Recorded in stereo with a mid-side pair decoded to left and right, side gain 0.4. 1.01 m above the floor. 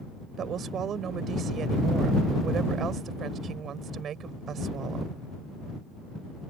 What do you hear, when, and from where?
0.4 s a woman speaking: 65° right